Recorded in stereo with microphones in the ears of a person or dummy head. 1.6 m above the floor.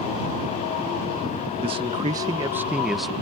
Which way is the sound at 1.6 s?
30° right (ahead or behind).